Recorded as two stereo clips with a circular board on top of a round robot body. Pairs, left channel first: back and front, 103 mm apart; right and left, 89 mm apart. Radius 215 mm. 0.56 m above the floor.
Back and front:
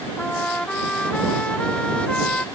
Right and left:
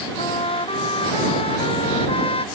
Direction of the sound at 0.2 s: 100° right.